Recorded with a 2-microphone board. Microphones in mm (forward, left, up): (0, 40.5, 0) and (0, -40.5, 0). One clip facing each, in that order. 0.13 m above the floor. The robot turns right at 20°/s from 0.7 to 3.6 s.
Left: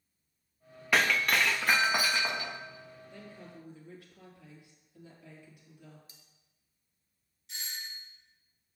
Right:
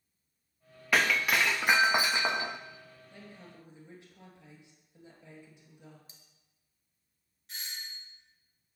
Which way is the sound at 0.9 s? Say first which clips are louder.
Even; straight behind.